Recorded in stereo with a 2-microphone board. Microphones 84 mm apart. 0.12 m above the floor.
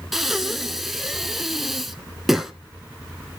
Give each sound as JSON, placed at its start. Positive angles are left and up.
{"t": 0.1, "sound": "breathing", "side_deg": -5, "distance_m": 0.7}